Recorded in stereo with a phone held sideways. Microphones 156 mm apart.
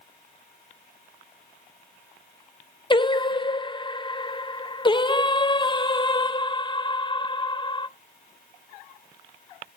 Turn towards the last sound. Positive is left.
turn(degrees=30)  # may be behind; listen again after turning